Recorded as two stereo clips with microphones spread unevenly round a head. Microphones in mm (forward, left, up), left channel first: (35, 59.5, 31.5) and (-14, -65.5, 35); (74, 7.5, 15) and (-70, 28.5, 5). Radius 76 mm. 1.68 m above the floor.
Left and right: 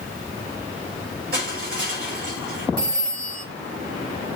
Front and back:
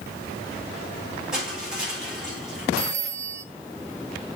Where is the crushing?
100° right, 8.5 m.